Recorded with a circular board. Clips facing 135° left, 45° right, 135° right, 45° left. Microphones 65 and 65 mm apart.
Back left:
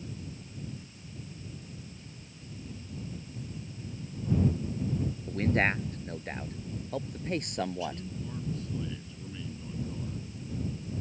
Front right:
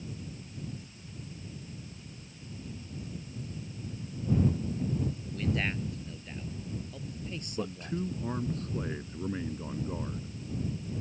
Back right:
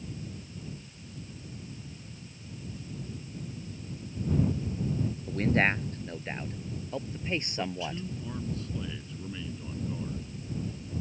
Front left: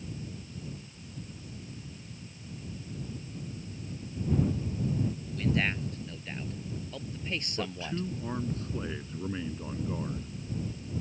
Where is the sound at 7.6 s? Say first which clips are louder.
Back left 1 dB, back right 1 dB; 10° right.